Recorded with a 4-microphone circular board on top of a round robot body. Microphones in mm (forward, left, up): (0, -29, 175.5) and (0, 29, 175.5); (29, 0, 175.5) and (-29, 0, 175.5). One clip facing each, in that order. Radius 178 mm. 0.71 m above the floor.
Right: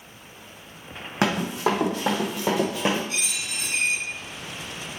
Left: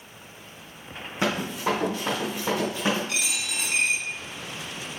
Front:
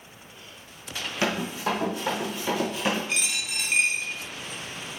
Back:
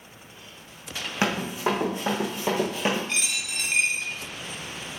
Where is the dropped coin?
85° left, 0.6 m.